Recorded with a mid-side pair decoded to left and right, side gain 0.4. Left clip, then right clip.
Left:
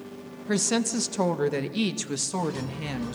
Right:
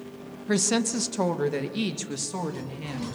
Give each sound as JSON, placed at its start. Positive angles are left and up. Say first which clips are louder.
{"t": 0.5, "sound": "a woman speaking", "louder": "right 1 dB", "azimuth_deg": -10, "distance_m": 1.6}